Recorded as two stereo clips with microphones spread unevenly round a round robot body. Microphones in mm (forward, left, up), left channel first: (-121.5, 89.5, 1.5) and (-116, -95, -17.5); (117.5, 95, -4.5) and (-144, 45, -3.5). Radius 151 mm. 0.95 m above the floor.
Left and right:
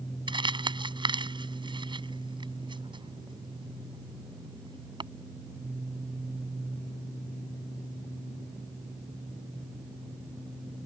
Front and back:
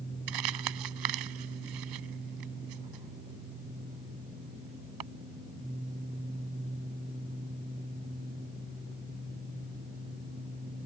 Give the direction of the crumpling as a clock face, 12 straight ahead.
5 o'clock.